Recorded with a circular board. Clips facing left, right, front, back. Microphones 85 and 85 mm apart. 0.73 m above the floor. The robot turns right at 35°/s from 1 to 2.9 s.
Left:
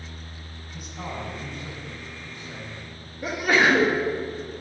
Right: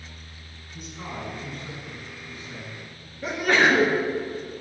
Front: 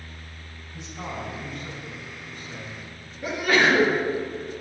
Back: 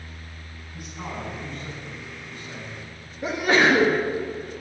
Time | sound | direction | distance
0.7 | a man speaking | 65° left | 3.5 m
3.2 | a sneeze | 160° left | 1.1 m